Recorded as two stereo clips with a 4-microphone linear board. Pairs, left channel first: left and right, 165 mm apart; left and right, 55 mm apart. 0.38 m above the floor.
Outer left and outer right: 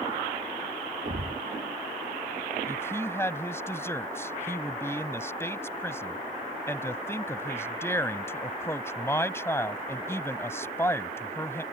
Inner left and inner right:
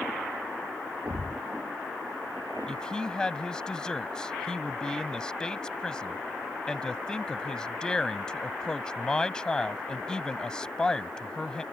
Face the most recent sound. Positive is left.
turn(degrees=15)  # may be behind; listen again after turning